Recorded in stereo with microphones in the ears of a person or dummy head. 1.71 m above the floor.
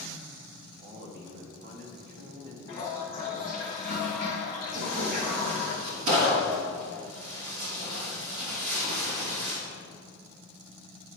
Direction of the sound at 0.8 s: 45° right (ahead or behind).